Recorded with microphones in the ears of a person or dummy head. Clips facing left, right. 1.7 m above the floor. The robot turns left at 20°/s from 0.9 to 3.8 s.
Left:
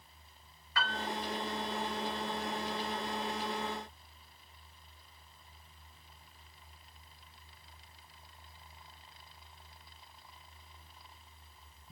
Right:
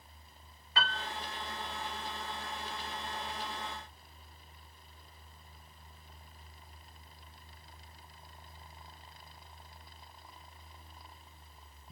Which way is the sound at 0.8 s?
20° right (ahead or behind).